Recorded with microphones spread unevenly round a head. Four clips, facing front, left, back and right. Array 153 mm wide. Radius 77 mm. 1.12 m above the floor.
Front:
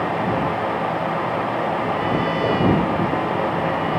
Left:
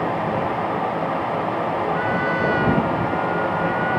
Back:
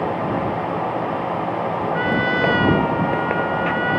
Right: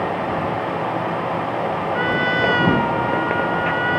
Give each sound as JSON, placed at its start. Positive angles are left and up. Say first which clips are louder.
{"t": 1.9, "sound": "a trumpet", "louder": "right 1 dB, back 1 dB", "azimuth_deg": -130}